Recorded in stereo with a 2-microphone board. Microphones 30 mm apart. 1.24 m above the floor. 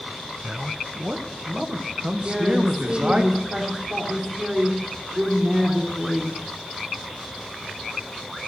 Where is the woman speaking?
20° right (ahead or behind), 3 m.